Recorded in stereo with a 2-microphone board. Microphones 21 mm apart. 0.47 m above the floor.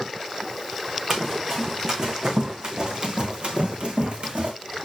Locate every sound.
1.1 s running footsteps: 25° right (ahead or behind), 2.5 m; by 4.5 s 80° right, 2 m